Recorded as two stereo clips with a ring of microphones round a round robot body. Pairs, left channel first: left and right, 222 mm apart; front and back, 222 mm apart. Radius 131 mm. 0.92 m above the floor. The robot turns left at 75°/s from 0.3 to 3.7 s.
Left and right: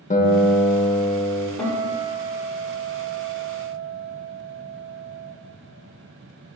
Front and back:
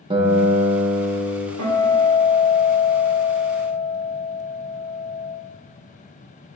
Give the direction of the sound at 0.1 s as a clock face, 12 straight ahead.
8 o'clock.